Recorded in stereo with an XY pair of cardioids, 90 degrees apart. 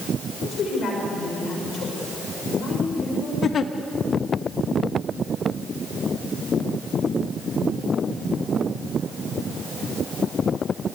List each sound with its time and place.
0.4 s a woman speaking: 70° left, 6 m
3.4 s a giggle: 55° left, 1.5 m